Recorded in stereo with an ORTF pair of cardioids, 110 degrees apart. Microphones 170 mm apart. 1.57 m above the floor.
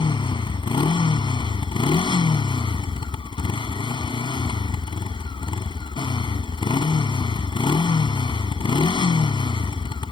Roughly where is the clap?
I don't hear a clap.